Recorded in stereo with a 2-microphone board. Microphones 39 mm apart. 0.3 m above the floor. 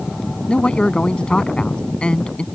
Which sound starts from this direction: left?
A man speaking, at 0.5 s.